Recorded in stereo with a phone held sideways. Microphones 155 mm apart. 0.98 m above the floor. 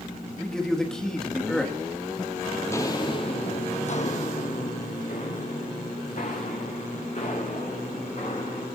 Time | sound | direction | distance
0.4 | a man speaking | 5° left (ahead or behind) | 1.7 m
2.6 | footsteps | 15° left (ahead or behind) | 1.1 m